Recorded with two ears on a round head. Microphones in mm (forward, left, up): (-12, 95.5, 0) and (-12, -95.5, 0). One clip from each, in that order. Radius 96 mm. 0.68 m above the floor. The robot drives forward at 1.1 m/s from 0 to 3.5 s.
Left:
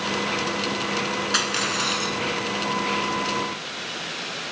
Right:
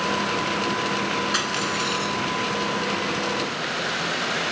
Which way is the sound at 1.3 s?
20° left (ahead or behind).